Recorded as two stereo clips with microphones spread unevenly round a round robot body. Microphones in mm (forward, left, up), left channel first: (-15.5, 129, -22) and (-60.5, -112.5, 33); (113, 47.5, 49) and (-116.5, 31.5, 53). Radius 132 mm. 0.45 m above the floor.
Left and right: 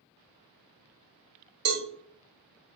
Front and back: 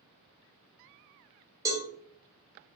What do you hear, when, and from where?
1.6 s a cowbell: 100° right, 1.2 m